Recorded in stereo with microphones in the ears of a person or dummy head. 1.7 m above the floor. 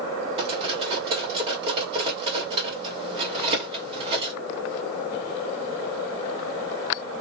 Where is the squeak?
No squeak in this recording.